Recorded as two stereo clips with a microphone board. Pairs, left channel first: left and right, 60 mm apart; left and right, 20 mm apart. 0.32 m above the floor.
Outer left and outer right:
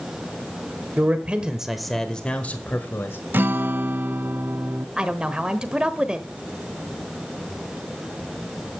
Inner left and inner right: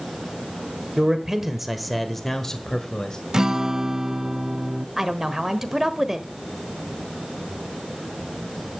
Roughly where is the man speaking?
Right.